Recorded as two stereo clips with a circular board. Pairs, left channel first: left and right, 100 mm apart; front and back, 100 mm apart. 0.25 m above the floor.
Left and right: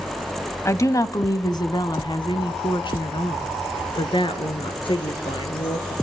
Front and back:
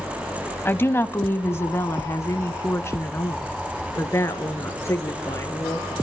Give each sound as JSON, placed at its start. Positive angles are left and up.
{"t": 0.7, "sound": "a woman speaking", "azimuth_deg": 55, "distance_m": 1.1}